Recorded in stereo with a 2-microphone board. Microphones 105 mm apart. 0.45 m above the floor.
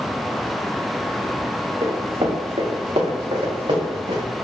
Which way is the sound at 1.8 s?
80° right.